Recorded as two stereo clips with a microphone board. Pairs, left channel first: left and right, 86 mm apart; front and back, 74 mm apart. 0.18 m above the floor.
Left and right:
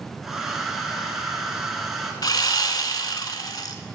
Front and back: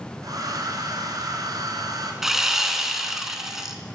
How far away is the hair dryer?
About 1.4 m.